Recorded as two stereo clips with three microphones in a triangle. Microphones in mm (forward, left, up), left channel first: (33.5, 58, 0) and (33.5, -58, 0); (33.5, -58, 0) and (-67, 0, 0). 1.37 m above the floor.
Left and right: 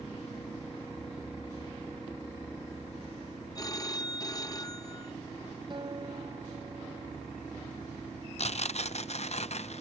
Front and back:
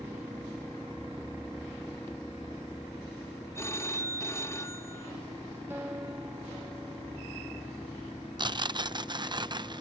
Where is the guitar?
140° right.